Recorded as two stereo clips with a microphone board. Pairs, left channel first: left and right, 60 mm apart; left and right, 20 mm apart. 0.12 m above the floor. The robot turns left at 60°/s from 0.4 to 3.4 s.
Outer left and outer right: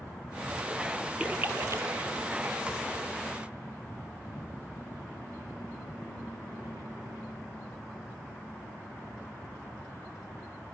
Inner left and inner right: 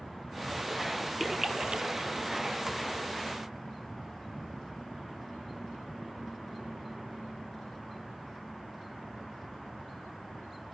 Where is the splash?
20° right (ahead or behind), 0.5 m; by 2.6 s 70° right (ahead or behind), 0.5 m.